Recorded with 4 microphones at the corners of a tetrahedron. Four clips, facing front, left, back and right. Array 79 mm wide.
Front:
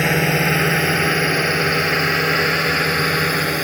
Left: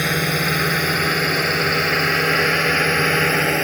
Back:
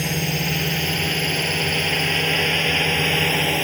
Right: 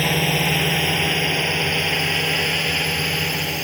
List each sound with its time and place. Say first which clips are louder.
0.0 s a drone: even, front 7 dB; 15° left; by 3.6 s 70° left